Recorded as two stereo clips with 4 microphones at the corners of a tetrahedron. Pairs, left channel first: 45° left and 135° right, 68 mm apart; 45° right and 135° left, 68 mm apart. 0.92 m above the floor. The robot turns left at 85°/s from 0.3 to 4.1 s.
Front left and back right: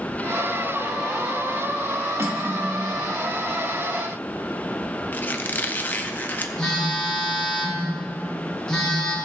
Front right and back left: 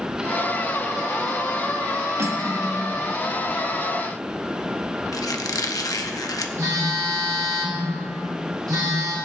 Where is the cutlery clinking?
Straight behind, 1.2 m; by 2.9 s 115° left, 1.2 m.